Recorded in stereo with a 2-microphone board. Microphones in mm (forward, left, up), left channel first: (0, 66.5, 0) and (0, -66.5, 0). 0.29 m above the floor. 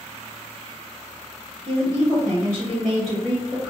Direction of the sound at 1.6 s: 30° left (ahead or behind).